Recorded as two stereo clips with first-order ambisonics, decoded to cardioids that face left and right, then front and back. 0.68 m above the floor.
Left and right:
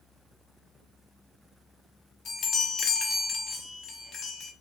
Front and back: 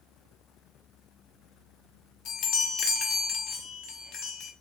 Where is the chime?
30° left, 0.8 m.